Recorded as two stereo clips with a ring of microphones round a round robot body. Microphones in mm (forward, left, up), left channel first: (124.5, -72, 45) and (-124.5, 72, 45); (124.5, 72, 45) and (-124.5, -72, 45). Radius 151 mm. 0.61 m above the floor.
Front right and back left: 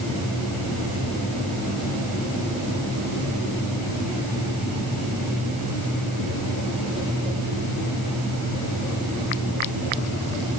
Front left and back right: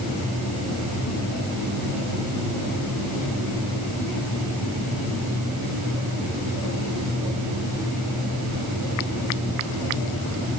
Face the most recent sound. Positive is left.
No sound to turn to.